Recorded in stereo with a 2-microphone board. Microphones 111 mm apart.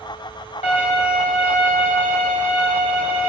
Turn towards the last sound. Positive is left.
turn(degrees=75)  # may be behind; listen again after turning